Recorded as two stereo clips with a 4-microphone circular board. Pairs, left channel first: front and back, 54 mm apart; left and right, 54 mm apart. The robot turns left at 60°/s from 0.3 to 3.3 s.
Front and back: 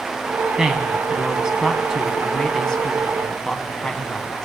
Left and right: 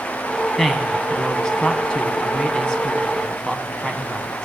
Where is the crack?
I don't hear a crack.